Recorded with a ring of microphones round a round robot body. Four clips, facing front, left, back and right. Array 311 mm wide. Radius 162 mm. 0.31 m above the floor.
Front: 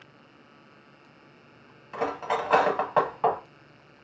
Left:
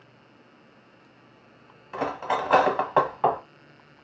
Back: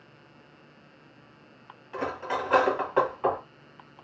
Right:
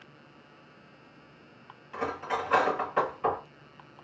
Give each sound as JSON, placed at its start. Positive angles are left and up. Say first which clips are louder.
{"t": 1.9, "sound": "cutlery clinking", "louder": "left 5 dB, front 3 dB", "azimuth_deg": 60, "distance_m": 1.2}